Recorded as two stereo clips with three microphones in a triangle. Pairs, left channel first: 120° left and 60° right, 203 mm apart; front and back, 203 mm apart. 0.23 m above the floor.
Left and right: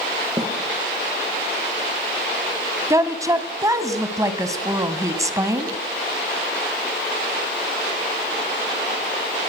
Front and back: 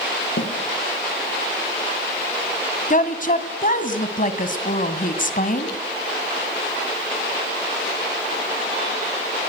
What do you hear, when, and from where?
0.4 s a snare drum: 10° left, 6 m
2.9 s a woman speaking: 5° left, 1.9 m